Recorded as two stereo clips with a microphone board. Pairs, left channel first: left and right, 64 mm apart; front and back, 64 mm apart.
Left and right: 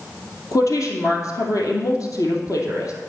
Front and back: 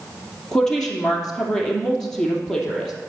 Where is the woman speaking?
80° left, 2.5 m.